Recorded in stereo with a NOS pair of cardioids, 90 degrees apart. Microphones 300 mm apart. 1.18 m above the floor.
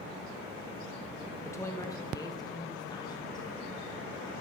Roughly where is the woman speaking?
Ahead.